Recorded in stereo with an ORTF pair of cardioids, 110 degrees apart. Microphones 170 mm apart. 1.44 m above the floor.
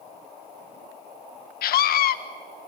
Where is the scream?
65° left, 1.6 m.